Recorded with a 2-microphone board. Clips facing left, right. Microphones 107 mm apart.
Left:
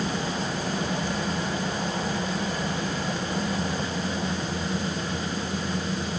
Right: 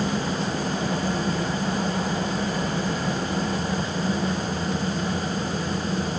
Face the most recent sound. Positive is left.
No sound to turn to.